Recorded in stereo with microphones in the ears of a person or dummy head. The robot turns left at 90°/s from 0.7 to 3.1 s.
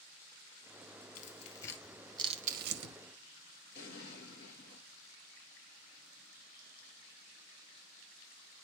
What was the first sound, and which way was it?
Tearing paper, 55° left (ahead or behind).